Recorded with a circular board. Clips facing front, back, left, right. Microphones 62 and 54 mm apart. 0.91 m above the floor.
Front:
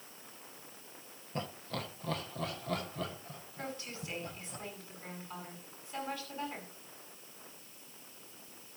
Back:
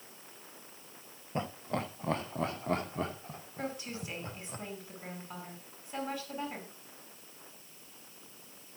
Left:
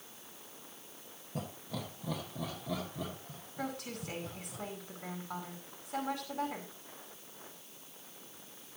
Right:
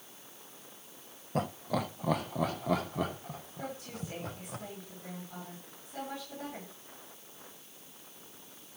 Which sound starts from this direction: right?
Laughter, at 1.4 s.